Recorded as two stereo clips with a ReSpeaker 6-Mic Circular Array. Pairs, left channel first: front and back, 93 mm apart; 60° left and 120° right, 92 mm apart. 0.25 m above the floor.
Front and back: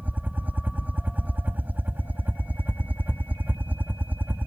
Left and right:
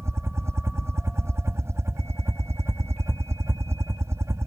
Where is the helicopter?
130° right.